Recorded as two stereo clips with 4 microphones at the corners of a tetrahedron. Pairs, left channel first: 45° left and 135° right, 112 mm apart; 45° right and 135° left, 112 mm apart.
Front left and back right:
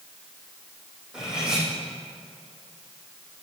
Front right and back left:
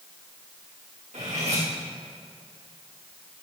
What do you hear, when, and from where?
1.1 s cutlery clinking: 140° left, 4.5 m